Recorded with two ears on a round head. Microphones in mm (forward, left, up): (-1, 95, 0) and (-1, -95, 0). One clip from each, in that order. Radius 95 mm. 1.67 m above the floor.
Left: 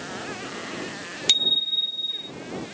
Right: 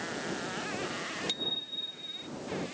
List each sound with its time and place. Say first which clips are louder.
1.3 s a bicycle bell: left 16 dB; 65° left (ahead or behind); by 2.3 s 55° left (ahead or behind)